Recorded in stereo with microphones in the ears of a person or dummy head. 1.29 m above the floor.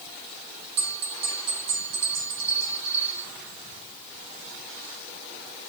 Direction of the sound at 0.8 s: 55° right (ahead or behind).